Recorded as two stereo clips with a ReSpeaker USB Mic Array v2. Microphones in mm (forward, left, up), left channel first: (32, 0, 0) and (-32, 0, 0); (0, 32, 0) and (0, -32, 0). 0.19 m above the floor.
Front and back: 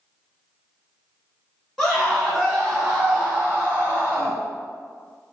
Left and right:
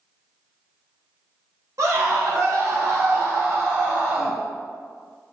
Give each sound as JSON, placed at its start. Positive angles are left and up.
{"t": 1.8, "sound": "a scream", "azimuth_deg": -85, "distance_m": 1.8}